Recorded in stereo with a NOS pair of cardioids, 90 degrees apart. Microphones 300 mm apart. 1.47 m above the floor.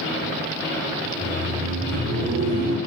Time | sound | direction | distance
1.0 | laughter | 30° right | 1.9 m